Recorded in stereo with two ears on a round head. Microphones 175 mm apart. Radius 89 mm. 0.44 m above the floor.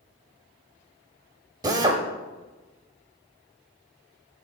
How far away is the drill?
About 0.7 m.